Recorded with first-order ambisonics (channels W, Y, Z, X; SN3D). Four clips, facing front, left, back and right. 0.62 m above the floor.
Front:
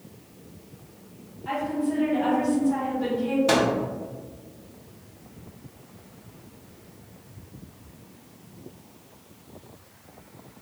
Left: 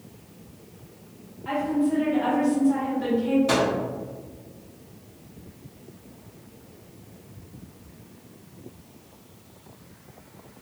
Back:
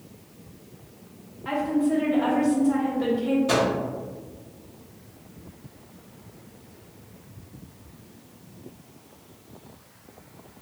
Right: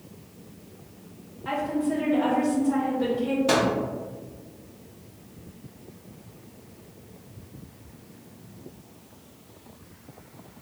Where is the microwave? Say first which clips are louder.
Even, front 3 dB; 20° right, 0.8 m.